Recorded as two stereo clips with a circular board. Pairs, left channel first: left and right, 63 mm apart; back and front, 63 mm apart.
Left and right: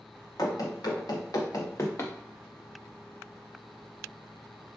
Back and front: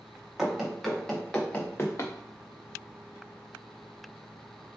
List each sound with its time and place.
0.4 s running footsteps: 85° left, 1.3 m; by 2.1 s 140° left, 0.7 m